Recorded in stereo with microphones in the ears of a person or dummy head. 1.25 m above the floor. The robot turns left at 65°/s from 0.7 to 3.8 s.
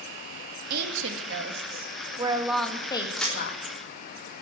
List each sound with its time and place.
0.7 s a woman speaking: 65° right, 2 m; by 3.8 s 100° left, 2 m
3.1 s a crack: 5° left (ahead or behind), 3.5 m; by 3.4 s 20° left (ahead or behind), 3.5 m